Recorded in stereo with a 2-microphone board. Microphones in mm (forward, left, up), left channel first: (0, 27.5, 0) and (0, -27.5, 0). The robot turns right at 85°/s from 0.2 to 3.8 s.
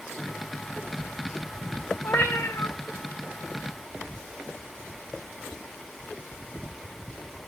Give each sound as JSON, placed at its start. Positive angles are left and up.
{"t": 2.0, "sound": "a cat meowing", "azimuth_deg": 50, "distance_m": 1.6}